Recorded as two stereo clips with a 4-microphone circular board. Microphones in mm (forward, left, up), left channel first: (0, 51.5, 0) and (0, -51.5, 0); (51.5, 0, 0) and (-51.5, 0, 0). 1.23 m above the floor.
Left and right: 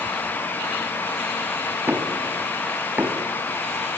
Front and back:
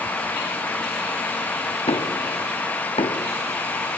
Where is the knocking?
20° right, 2 m.